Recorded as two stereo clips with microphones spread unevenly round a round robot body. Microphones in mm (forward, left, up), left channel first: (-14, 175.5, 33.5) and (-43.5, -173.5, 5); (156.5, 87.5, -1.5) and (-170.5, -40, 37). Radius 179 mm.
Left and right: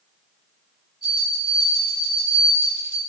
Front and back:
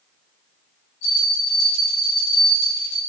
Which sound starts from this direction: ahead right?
A bell, at 1.0 s.